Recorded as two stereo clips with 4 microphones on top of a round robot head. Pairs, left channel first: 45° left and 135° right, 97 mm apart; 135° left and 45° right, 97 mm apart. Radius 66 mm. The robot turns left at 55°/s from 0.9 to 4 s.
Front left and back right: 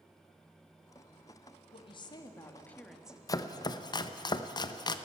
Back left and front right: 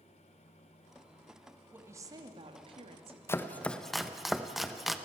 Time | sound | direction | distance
1.7 | a woman speaking | 25° left | 1.8 m
3.3 | chopping | 80° left | 1.0 m